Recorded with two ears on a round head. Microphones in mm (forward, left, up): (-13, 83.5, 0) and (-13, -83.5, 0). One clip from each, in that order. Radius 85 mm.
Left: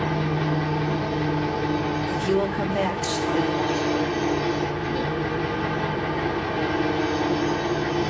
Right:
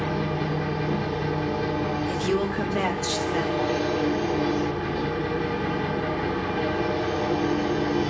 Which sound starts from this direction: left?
An engine running, at 0.0 s.